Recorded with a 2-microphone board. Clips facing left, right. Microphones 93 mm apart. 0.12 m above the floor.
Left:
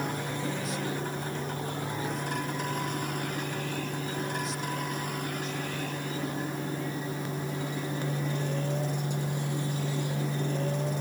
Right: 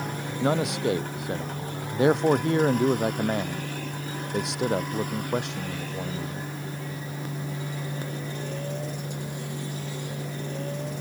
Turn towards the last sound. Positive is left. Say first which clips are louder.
# right 13 dB
turn(degrees=-75)  # may be behind; listen again after turning